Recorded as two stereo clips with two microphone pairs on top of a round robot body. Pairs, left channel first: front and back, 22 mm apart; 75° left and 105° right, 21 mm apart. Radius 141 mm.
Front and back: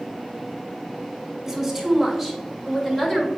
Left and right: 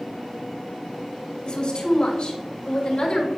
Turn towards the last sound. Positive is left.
turn(degrees=65)